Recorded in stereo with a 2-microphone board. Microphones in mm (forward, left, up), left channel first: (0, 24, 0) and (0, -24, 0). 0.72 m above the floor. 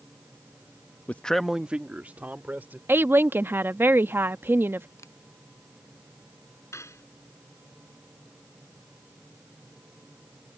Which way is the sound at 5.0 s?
85° left.